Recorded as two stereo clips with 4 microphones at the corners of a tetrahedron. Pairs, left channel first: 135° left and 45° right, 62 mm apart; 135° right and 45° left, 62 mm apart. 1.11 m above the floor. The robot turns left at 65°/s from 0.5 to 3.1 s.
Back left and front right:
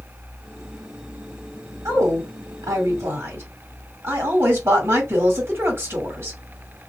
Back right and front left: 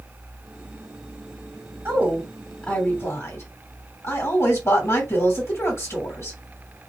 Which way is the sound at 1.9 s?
5° right.